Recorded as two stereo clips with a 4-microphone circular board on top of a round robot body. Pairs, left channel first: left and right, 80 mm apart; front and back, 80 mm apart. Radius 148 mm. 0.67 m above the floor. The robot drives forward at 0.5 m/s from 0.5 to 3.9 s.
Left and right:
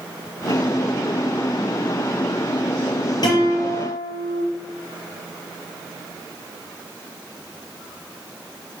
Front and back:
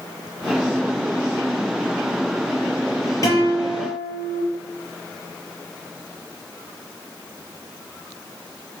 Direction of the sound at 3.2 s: 50° left.